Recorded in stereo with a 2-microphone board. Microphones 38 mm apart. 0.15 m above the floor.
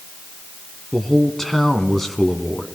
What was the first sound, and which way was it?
A man speaking, 5° left (ahead or behind).